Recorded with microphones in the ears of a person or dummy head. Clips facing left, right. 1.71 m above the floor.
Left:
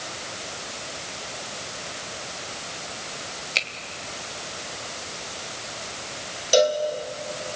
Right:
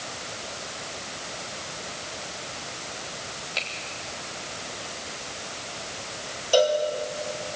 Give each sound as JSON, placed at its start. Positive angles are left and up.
{"t": 3.5, "sound": "a finger snap", "side_deg": 35, "distance_m": 3.0}
{"t": 6.5, "sound": "a cowbell", "side_deg": 25, "distance_m": 2.5}